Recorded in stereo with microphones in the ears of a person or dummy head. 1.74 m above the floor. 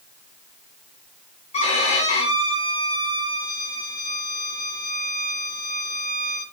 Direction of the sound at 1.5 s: 35° left (ahead or behind).